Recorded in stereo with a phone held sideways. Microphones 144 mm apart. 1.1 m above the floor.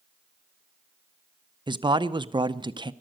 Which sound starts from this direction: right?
A man speaking, at 1.7 s.